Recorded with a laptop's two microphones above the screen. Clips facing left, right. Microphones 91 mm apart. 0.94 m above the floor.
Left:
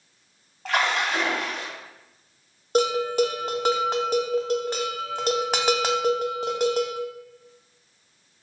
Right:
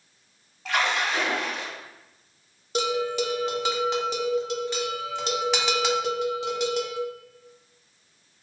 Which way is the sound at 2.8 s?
40° left (ahead or behind).